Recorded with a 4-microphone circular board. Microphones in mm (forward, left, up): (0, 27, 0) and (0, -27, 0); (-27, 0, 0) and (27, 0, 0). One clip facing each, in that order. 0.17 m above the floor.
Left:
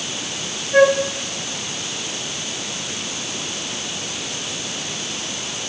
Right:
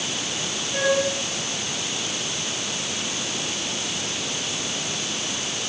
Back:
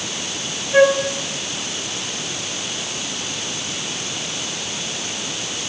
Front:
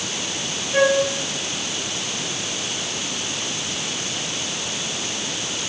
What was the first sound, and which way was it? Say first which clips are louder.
A flute: left 9 dB, back 4 dB; 120° left.